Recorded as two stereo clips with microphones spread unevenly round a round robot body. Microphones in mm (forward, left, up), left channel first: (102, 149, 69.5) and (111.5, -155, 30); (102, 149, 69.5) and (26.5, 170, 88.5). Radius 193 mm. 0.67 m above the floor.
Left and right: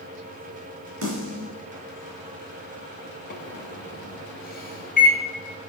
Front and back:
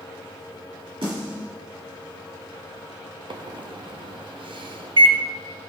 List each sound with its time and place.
1.0 s a snare drum: 145° right, 2 m
3.3 s a microwave: 155° left, 0.8 m